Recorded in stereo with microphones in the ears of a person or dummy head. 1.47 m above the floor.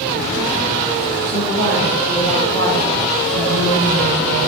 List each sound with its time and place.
1.2 s a woman speaking: 70° right (ahead or behind), 2 m; by 4.5 s 55° right (ahead or behind), 1.5 m